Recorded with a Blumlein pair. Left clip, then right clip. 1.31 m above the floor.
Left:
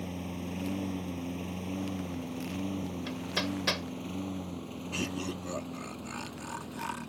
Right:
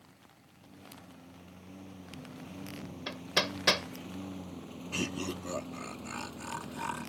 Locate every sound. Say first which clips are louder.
0.0 s a lawn mower: left 19 dB; 45° left; by 7.1 s straight ahead
3.1 s hammering: right 4 dB; 15° right
4.9 s laughter: even; 5° right